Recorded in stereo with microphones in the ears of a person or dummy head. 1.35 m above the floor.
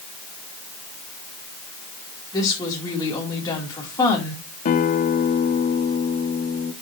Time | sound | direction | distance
2.3 | a woman speaking | 25° left (ahead or behind) | 4 m
4.7 | a guitar | 55° left (ahead or behind) | 1.2 m